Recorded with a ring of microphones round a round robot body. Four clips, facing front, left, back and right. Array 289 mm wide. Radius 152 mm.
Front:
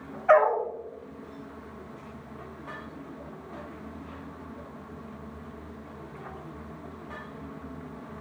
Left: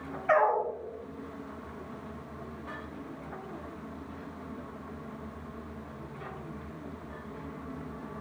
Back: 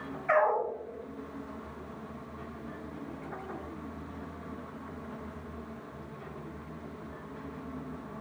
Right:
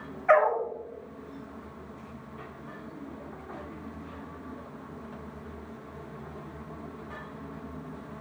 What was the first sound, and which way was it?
A dog barking, 45° right.